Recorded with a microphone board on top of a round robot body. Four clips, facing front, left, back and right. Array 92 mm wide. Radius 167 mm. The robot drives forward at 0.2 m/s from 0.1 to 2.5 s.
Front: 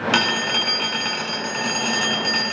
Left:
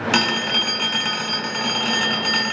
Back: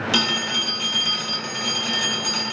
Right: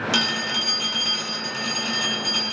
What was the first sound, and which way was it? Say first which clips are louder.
A phone ringing: left 4 dB, front 3 dB; 40° left.